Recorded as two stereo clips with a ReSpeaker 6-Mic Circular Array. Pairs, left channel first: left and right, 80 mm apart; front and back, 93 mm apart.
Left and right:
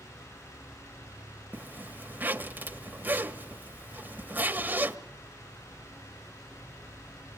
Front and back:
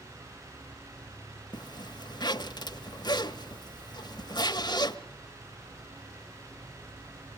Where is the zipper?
25° right, 1.0 m.